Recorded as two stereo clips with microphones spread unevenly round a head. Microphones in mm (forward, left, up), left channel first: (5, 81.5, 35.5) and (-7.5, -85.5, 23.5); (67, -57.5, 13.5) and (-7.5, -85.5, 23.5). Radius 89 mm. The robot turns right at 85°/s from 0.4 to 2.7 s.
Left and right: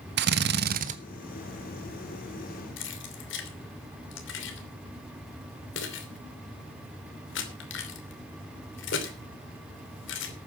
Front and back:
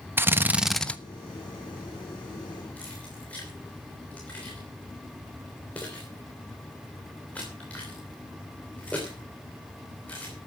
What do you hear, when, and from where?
0.2 s a drill: 95° right, 1.2 m; by 1.0 s 45° right, 1.2 m
2.8 s keys jangling: 100° left, 3 m